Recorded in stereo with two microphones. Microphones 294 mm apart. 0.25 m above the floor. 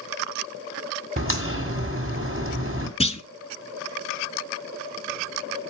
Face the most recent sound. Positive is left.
turn(degrees=20)  # may be behind; listen again after turning